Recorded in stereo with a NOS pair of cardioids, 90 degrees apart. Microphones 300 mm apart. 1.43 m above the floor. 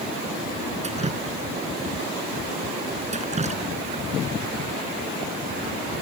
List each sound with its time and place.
0.8 s dripping: 25° right